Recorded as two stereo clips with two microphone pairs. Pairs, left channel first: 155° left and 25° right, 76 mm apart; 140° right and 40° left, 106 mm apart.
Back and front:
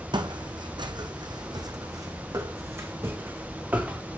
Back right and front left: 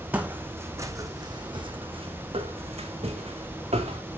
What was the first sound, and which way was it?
Footsteps, 35° right.